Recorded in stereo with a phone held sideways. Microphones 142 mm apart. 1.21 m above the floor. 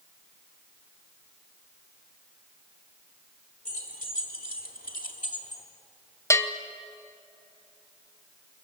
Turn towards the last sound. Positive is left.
turn(degrees=20)  # may be behind; listen again after turning